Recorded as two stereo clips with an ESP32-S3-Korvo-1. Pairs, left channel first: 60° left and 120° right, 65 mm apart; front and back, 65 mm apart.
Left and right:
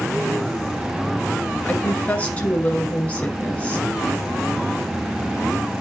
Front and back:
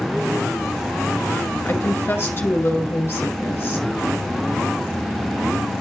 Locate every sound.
1.6 s a woman speaking: 10° left, 1.8 m